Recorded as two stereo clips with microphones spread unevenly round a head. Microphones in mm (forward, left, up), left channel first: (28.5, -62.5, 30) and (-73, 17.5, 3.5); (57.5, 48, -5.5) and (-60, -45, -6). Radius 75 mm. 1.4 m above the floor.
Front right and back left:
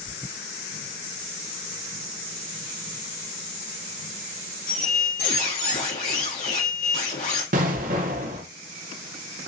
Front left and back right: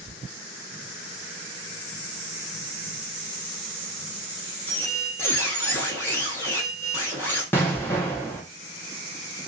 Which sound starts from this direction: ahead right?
A squeak, at 4.7 s.